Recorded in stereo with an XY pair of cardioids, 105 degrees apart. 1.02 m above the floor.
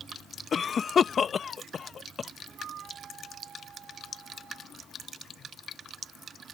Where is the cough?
40° left.